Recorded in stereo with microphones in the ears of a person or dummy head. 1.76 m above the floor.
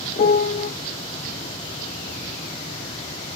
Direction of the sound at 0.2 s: 30° left (ahead or behind).